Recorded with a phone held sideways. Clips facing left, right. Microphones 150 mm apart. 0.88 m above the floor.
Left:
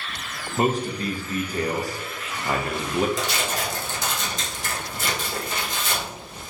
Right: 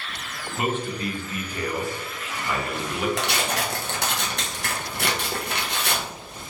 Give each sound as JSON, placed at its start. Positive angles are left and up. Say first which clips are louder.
{"t": 0.6, "sound": "a man speaking", "louder": "left 4 dB", "side_deg": 40, "distance_m": 0.5}
{"t": 3.2, "sound": "tearing paper", "louder": "right 1 dB", "side_deg": -65, "distance_m": 0.6}